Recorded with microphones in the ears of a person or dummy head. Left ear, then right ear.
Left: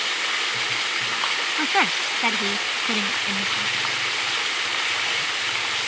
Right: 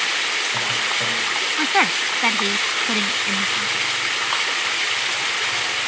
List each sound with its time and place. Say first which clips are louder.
1.6 s a woman speaking: right 3 dB; centre (ahead or behind); by 3.9 s 5° right (ahead or behind)